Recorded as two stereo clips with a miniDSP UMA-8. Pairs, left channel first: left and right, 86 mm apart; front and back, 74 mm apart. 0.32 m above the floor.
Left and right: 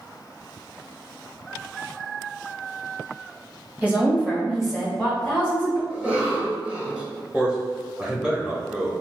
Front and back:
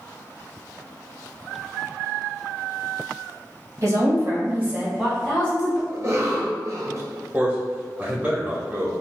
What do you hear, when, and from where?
3.8 s a woman speaking: 155° right, 1.8 m; by 5.8 s 40° left, 1.5 m
5.9 s a cough: 160° right, 1.4 m
7.3 s a man speaking: 145° right, 1.1 m